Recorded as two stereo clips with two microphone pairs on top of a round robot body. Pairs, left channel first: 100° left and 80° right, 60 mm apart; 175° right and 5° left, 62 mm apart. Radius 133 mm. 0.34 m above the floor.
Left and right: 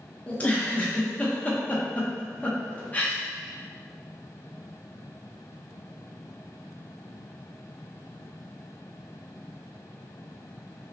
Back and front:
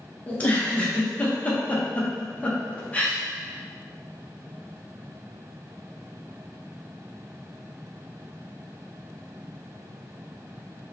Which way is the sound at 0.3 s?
130° left.